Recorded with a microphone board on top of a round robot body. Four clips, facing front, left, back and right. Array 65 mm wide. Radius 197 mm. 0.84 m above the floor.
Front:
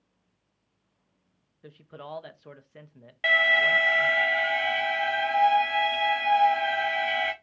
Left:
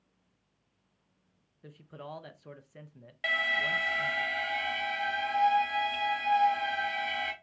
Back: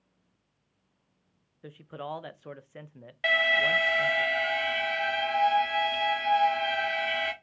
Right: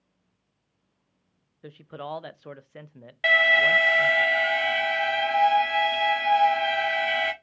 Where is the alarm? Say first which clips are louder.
Right 10 dB, front 3 dB; 80° right, 1.0 m.